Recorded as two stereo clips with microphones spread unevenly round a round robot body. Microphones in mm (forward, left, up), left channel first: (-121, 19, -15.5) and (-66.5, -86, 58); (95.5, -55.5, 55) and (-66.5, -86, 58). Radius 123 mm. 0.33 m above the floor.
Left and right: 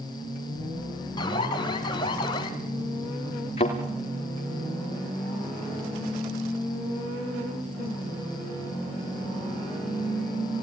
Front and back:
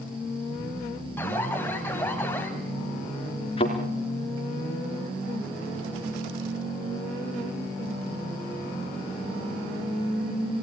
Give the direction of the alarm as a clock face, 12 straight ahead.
9 o'clock.